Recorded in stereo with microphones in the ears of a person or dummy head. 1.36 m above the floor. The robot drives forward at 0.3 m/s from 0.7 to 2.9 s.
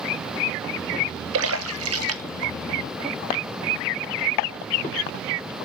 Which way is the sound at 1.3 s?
75° right (ahead or behind).